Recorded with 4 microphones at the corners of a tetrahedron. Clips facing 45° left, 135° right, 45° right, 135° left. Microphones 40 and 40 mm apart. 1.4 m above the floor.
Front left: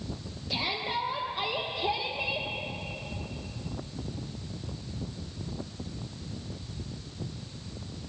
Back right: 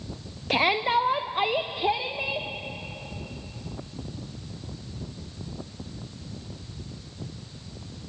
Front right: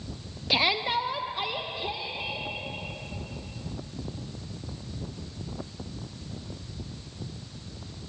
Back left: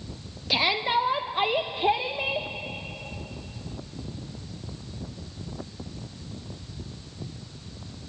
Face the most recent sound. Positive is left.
turn(degrees=150)